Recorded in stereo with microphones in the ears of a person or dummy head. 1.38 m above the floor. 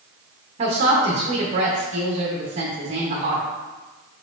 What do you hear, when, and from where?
0.6 s a woman speaking: 35° right (ahead or behind), 0.7 m